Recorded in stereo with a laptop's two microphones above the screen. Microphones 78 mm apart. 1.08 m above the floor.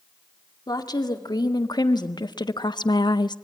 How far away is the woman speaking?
About 2 m.